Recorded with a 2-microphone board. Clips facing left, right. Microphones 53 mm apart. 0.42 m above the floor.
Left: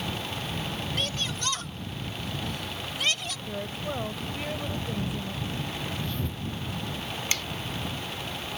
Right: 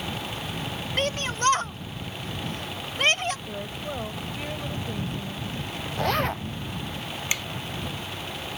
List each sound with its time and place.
1.0 s a shout: 45° right (ahead or behind)
3.5 s a woman speaking: centre (ahead or behind)
6.0 s a zipper: 75° right (ahead or behind)
7.3 s a finger snap: 15° right (ahead or behind)